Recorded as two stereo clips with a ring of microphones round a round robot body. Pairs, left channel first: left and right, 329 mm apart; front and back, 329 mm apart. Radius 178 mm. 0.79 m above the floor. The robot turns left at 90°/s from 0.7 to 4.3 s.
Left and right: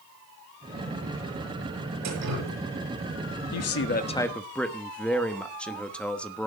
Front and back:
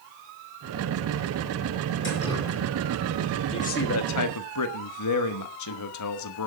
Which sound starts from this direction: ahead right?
Dripping, at 2.0 s.